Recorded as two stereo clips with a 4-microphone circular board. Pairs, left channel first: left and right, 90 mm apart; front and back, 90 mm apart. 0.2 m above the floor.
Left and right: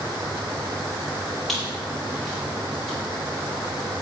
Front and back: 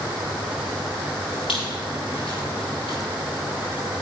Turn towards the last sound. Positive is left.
turn(degrees=5)